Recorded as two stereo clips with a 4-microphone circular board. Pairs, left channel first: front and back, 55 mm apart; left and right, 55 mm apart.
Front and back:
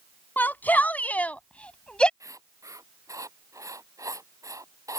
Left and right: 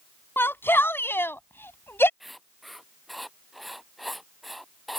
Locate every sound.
0.4 s a shout: 50° left; by 2.1 s 65° left
2.2 s writing: straight behind